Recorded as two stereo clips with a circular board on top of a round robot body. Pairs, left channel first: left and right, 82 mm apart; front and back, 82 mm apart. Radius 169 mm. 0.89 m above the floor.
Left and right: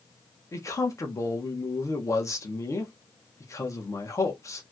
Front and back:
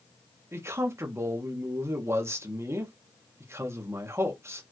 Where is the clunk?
No clunk in this recording.